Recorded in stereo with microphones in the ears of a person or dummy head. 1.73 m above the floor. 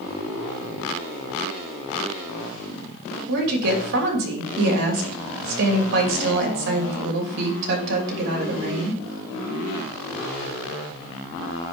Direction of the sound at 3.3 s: 65° right (ahead or behind).